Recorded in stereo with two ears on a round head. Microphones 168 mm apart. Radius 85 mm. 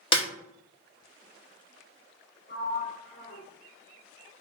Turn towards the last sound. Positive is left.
turn(degrees=35)  # may be behind; listen again after turning